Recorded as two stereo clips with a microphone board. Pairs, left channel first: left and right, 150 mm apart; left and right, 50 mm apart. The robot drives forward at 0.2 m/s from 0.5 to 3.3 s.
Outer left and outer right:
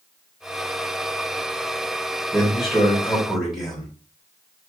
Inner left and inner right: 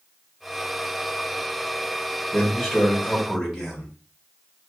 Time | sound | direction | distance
2.3 | a man speaking | centre (ahead or behind) | 1.2 m